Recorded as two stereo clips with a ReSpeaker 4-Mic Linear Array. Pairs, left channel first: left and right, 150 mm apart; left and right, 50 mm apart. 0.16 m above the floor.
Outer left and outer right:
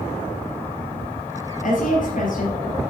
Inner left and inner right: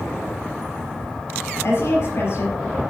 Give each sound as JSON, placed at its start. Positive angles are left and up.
{"t": 1.6, "sound": "a woman speaking", "side_deg": 60, "distance_m": 4.0}